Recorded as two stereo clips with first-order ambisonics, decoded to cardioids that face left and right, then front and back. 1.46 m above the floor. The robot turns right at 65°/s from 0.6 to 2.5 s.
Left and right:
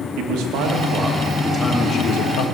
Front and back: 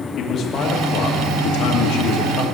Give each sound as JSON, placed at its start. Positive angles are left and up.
{"t": 0.2, "sound": "a man speaking", "azimuth_deg": -60, "distance_m": 2.0}